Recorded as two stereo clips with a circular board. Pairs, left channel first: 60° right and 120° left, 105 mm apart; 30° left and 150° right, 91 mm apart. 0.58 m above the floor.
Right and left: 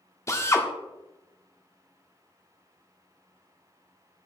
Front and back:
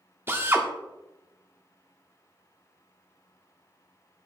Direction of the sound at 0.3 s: 105° right.